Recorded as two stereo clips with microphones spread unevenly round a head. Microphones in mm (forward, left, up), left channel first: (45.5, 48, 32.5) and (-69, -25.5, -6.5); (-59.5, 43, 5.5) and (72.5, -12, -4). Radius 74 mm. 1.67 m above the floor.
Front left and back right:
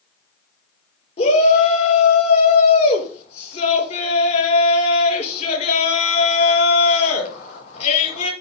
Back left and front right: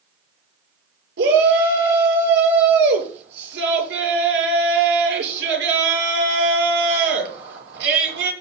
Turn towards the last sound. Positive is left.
turn(degrees=-15)